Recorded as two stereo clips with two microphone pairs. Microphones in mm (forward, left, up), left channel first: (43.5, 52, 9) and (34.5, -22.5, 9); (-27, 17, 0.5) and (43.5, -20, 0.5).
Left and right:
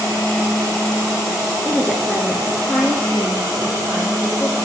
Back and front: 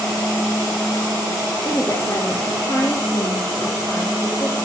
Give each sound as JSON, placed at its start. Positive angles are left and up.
{"t": 1.6, "sound": "a woman speaking", "azimuth_deg": -170, "distance_m": 1.8}